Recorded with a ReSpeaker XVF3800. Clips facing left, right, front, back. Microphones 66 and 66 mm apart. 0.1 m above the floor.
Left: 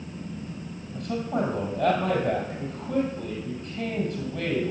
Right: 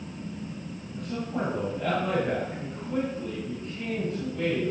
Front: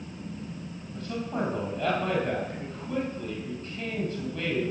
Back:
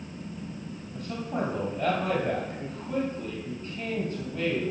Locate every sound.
0.9 s a man speaking: 110° left, 3 m